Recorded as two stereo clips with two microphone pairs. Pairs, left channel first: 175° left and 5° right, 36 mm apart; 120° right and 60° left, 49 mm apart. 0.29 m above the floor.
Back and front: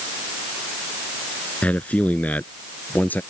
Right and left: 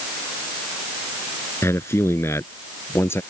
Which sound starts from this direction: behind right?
A man speaking, at 1.6 s.